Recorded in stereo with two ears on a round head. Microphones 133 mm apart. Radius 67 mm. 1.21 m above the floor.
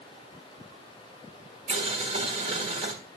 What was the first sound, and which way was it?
Boiling, 45° right (ahead or behind).